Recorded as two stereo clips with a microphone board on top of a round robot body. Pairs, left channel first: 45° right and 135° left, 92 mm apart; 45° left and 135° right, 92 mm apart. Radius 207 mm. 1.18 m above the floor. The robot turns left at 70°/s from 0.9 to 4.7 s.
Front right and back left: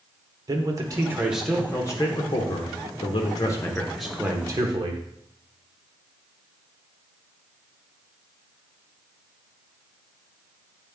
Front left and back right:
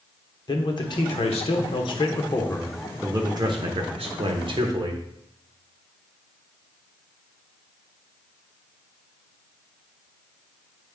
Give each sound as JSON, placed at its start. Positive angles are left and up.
{"t": 0.5, "sound": "a man speaking", "azimuth_deg": 85, "distance_m": 1.2}